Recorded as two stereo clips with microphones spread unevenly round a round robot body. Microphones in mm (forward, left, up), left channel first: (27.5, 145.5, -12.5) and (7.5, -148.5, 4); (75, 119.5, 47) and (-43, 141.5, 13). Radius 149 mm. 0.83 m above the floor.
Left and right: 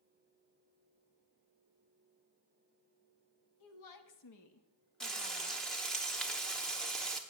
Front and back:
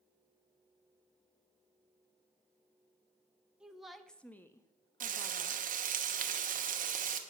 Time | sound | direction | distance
3.6 | a woman speaking | 90° left | 1.4 m
5.0 | frying | 175° left | 0.9 m